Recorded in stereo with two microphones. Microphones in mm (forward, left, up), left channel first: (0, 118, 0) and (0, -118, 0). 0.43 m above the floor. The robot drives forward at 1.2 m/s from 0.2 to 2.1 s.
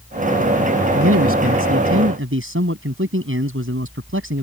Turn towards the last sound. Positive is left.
turn(degrees=-60)  # may be behind; listen again after turning